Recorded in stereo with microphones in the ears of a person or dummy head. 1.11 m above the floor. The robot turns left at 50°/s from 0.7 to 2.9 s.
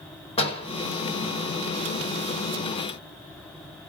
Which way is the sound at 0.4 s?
30° left (ahead or behind).